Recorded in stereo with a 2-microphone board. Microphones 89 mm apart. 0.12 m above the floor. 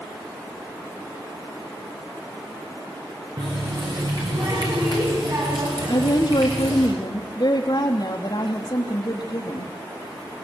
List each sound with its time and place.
3.4 s a running tap: 55° right (ahead or behind), 8.5 m
5.9 s a woman speaking: 55° left (ahead or behind), 3.5 m